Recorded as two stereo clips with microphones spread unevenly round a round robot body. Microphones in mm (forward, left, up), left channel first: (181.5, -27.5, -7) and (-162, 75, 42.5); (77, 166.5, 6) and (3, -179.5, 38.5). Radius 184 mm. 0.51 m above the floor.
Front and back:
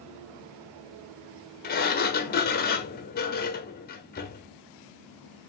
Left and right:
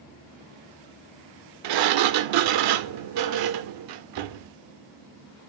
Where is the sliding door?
80° right, 0.7 m.